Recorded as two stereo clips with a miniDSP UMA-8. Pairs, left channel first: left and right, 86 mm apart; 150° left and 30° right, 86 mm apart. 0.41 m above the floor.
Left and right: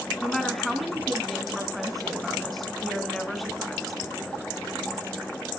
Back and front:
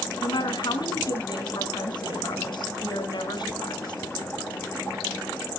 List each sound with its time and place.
0.2 s a woman speaking: straight behind, 3.5 m